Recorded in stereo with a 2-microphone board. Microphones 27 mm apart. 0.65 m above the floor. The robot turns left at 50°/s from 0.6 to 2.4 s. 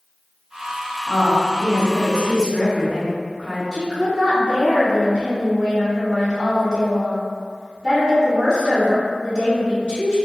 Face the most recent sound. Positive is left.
turn(degrees=-35)  # may be behind; listen again after turning